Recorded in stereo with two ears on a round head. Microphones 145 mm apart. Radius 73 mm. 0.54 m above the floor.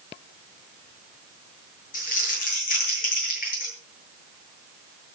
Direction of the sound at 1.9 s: 55° left (ahead or behind).